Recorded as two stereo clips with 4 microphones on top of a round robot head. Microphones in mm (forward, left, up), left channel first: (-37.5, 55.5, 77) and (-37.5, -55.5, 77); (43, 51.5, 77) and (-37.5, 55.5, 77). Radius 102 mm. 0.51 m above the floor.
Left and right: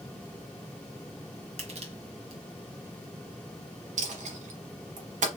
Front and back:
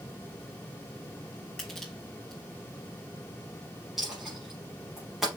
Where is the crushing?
85° right, 2.5 m.